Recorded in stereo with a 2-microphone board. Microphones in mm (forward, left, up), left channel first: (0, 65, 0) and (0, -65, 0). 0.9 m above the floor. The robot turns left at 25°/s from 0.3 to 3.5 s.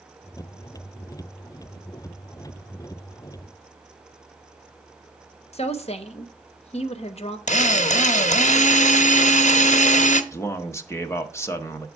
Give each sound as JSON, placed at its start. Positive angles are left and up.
{"t": 5.5, "sound": "a woman speaking", "side_deg": 50, "distance_m": 0.8}
{"t": 7.5, "sound": "a drill", "side_deg": 65, "distance_m": 0.6}
{"t": 10.3, "sound": "a man speaking", "side_deg": 20, "distance_m": 0.9}